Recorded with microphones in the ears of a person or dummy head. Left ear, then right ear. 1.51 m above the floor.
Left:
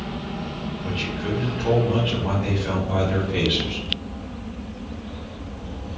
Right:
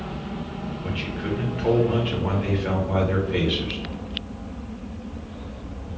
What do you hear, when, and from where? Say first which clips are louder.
0.8 s a man speaking: left 2 dB; 30° right (ahead or behind), 1.5 m